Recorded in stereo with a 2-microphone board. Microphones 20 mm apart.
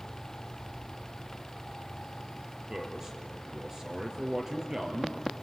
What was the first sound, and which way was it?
A man speaking, 25° right (ahead or behind).